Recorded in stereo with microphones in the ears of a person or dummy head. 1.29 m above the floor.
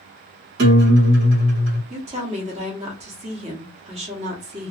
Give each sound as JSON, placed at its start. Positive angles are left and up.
{"t": 0.6, "sound": "a guitar", "side_deg": -70, "distance_m": 1.4}
{"t": 1.9, "sound": "a woman speaking", "side_deg": -30, "distance_m": 1.0}